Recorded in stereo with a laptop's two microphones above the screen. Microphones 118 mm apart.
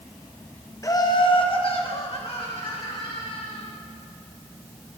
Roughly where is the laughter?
Left.